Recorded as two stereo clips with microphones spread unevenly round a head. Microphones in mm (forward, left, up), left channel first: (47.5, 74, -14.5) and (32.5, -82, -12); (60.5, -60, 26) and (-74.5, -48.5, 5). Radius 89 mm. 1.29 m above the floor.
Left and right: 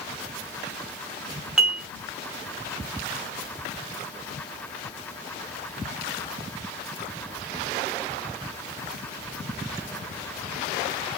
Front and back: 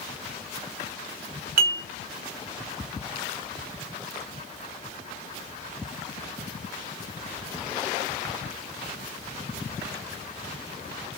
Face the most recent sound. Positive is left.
turn(degrees=180)